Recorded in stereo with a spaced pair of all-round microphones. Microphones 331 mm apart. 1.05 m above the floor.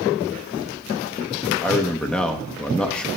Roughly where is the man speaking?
Centre.